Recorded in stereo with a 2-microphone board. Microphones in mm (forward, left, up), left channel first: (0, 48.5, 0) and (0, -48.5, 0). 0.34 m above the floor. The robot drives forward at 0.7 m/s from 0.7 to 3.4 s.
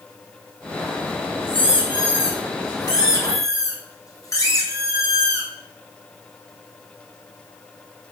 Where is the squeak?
70° left (ahead or behind), 1.3 m; by 5.5 s 35° left (ahead or behind), 2 m.